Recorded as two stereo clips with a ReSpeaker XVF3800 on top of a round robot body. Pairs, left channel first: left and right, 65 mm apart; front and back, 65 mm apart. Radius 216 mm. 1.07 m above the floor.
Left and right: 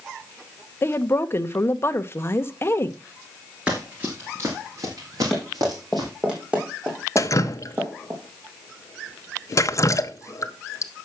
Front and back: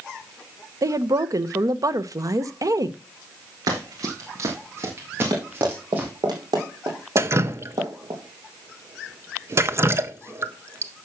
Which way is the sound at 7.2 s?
130° left.